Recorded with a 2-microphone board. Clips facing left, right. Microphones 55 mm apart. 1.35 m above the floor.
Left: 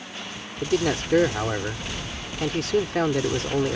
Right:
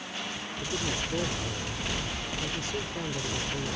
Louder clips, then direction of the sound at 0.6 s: Left 10 dB; 80° left.